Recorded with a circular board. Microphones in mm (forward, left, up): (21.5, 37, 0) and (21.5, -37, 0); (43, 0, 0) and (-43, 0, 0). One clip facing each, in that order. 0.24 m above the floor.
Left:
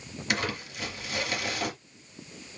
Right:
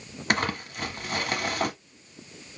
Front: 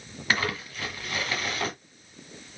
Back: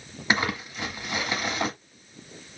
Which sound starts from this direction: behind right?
Crumpling, at 0.3 s.